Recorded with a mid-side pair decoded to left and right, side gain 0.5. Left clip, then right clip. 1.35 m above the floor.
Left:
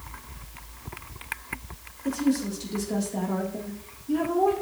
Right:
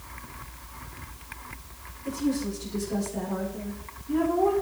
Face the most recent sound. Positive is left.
turn(degrees=35)